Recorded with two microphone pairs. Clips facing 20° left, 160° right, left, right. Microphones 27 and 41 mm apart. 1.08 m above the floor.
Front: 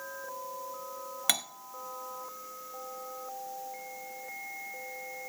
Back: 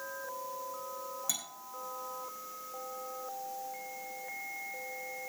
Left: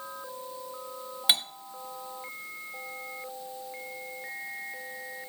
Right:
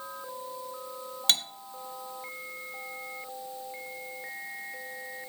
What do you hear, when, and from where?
1.3 s cutlery clinking: 15° left, 0.7 m